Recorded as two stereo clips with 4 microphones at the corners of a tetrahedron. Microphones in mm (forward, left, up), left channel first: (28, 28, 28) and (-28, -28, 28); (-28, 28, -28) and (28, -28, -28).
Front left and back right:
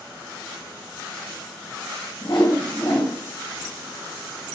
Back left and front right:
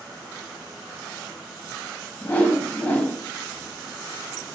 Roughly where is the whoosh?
Ahead left.